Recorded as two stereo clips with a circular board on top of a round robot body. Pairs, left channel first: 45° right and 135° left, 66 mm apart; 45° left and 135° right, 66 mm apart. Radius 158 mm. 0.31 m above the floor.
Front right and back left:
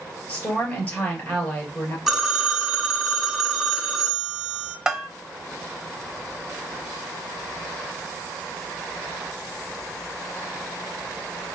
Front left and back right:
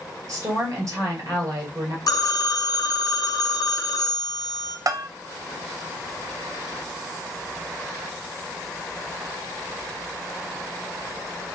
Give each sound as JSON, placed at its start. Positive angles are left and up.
{"t": 0.3, "sound": "a woman speaking", "azimuth_deg": -105, "distance_m": 2.5}
{"t": 2.1, "sound": "a phone ringing", "azimuth_deg": 50, "distance_m": 1.3}
{"t": 4.9, "sound": "a bell", "azimuth_deg": -145, "distance_m": 0.7}